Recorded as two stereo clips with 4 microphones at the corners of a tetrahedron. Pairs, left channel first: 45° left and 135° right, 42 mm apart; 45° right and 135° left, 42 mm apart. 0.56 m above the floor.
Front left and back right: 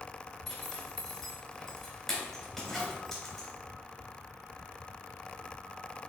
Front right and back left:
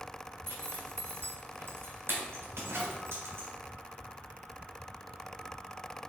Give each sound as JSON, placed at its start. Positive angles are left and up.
{"t": 0.5, "sound": "a zipper", "azimuth_deg": 130, "distance_m": 3.0}